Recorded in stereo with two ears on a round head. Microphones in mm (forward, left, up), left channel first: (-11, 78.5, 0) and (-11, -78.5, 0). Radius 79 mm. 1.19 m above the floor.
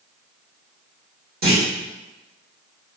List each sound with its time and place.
1.4 s a clunk: 60° right (ahead or behind), 1.7 m